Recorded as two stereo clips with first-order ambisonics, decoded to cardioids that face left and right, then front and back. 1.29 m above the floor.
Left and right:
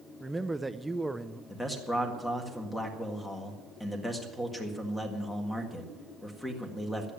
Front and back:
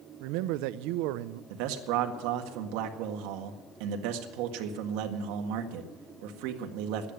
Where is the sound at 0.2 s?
175° right, 0.5 m.